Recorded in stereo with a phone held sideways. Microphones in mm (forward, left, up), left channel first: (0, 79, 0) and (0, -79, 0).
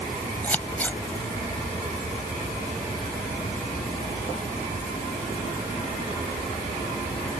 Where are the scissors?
10° left (ahead or behind).